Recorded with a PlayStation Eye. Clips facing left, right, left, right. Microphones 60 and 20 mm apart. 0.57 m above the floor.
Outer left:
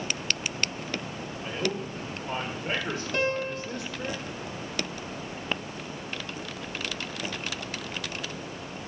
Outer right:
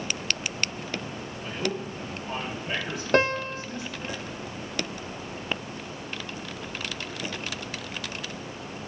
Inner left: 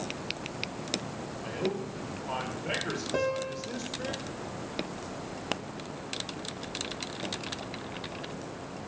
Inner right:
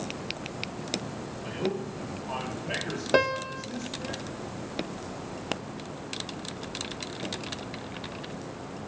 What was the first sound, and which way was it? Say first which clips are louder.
A man speaking: even, inner right 1 dB; 25° left (ahead or behind).